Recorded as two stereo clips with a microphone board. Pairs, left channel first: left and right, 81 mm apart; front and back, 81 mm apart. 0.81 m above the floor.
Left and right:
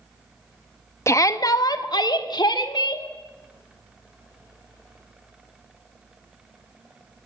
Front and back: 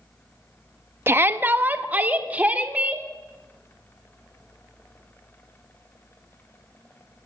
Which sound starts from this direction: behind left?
A shout, at 1.1 s.